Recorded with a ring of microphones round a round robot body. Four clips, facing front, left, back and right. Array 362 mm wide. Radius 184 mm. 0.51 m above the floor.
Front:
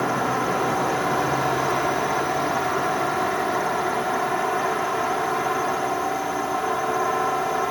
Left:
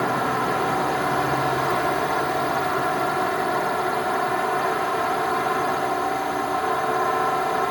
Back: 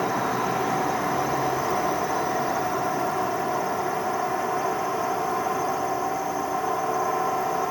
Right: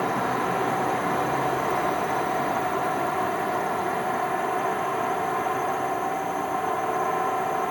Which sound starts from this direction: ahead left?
A drone, at 0.0 s.